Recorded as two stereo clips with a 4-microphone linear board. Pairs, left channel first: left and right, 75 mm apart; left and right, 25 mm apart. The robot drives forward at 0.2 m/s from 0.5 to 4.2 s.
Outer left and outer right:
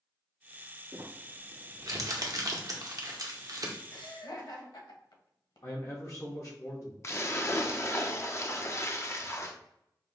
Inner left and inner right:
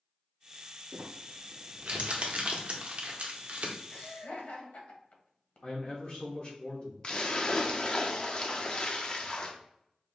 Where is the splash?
40° left (ahead or behind), 0.6 m.